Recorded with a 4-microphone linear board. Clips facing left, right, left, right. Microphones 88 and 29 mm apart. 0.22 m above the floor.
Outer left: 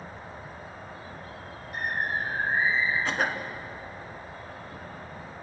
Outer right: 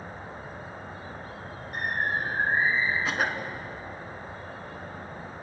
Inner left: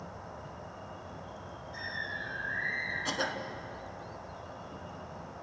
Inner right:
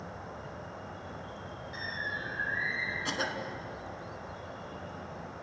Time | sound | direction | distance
0.0 | an insect | 25° right (ahead or behind) | 1.9 m
1.7 | a bird | 45° right (ahead or behind) | 8.5 m
3.0 | a cough | 5° right (ahead or behind) | 1.9 m